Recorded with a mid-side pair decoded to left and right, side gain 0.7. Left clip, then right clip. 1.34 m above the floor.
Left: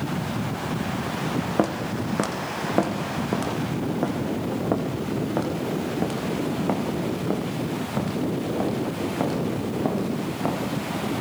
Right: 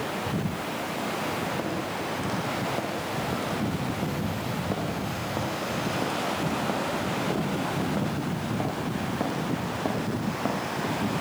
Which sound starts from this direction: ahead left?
Footsteps, at 1.6 s.